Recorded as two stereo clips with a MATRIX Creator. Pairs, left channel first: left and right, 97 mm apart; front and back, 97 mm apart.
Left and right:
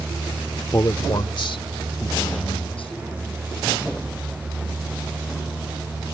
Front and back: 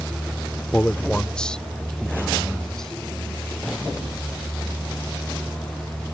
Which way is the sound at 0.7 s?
65° left.